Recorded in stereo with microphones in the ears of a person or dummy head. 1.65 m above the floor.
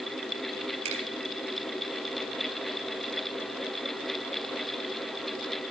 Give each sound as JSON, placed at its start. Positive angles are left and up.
{"t": 0.8, "sound": "a finger snap", "side_deg": -35, "distance_m": 4.0}